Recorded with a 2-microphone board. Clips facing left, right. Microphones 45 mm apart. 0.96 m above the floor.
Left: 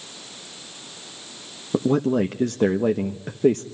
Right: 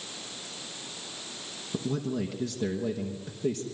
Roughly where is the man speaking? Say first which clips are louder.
Left 11 dB; left.